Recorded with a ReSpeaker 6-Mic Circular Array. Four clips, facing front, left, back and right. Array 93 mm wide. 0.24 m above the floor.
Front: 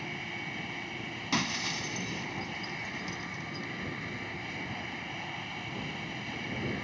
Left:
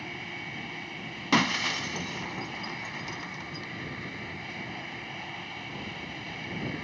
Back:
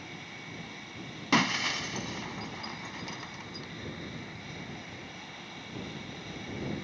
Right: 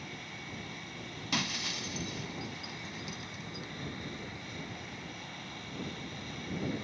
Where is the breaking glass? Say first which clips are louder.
Left 11 dB, back 6 dB; 120° left.